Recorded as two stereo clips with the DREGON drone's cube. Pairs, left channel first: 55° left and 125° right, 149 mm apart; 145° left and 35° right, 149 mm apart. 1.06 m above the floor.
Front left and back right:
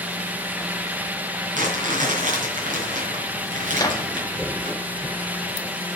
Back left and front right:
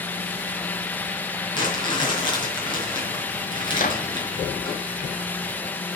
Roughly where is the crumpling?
Behind right.